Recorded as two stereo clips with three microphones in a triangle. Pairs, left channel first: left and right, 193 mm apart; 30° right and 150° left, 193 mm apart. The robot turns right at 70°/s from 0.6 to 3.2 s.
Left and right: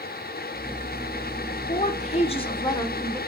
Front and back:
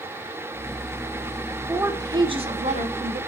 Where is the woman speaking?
70° left, 1.3 m; by 3.2 s 175° left, 1.3 m.